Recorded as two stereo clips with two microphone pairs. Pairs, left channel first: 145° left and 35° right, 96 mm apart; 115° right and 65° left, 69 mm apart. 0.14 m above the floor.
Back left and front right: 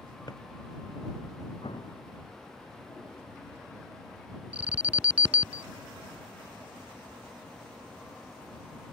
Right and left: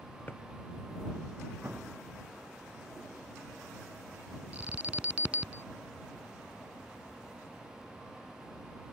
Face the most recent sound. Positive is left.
turn(degrees=15)